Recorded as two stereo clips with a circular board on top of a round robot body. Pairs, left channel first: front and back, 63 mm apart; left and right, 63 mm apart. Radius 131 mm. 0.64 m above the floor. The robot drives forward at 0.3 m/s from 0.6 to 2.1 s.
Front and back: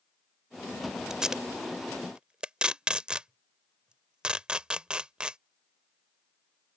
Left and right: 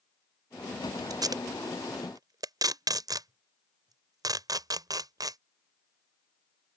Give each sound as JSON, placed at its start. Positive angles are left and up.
{"t": 1.1, "sound": "tape being pulled", "azimuth_deg": -95}